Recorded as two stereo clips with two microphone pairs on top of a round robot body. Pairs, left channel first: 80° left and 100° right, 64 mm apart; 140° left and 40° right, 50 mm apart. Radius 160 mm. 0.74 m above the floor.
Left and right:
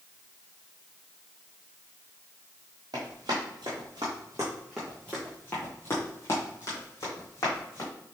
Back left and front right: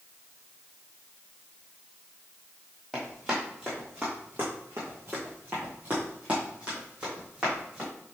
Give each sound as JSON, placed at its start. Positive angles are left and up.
{"t": 2.9, "sound": "running footsteps", "azimuth_deg": -130, "distance_m": 1.2}